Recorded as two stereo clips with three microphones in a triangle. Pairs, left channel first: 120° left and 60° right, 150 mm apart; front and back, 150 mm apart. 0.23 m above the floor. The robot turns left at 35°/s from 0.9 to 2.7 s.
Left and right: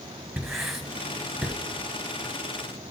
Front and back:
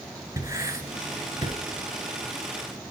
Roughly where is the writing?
Behind right.